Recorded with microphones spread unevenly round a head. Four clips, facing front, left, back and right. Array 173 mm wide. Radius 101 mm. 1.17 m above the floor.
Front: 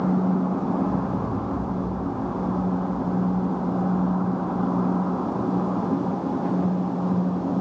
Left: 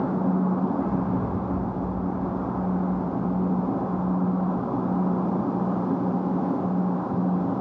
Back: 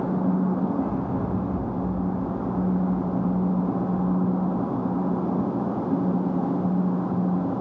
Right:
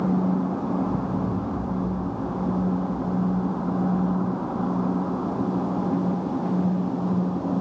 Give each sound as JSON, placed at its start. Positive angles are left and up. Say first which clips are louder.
{"t": 0.8, "sound": "an explosion", "louder": "even, front 1 dB", "azimuth_deg": 85, "distance_m": 8.5}